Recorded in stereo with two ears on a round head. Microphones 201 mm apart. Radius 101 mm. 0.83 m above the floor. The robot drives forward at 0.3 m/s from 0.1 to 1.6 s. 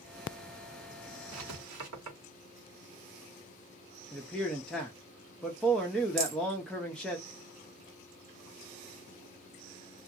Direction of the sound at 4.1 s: 5° left (ahead or behind).